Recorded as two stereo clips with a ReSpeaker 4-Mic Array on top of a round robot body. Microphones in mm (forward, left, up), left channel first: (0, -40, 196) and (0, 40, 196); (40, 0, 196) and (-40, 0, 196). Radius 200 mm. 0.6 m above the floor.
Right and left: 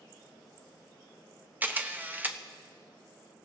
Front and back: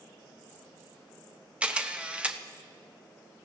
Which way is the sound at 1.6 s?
125° left.